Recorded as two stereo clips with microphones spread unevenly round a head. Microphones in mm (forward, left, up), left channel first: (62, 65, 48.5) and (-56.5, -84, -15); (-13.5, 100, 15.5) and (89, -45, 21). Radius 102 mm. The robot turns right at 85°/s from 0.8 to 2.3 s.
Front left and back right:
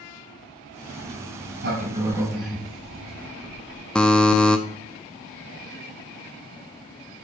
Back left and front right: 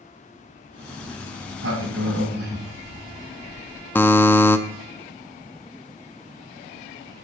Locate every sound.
1.0 s a sliding door: 145° right, 2.5 m; by 3.8 s 35° right, 2.5 m
4.0 s a buzzer: 60° left, 0.6 m